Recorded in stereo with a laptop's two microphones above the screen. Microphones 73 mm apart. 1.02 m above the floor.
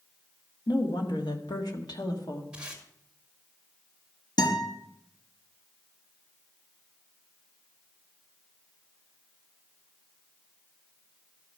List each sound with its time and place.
0.7 s a woman speaking: 75° left (ahead or behind), 2.0 m; by 2.4 s 60° left (ahead or behind), 1.9 m
2.5 s tape being pulled: 15° right (ahead or behind), 2 m
4.4 s a guitar: 80° left, 4.5 m